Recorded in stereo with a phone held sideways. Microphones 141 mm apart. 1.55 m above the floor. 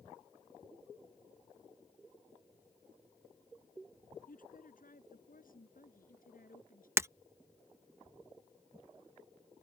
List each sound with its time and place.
4.3 s a woman speaking: 80° left
7.0 s breaking glass: 20° right (ahead or behind)